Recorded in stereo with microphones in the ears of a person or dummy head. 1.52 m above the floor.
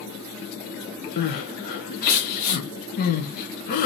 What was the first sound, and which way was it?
Crying, 50° left (ahead or behind).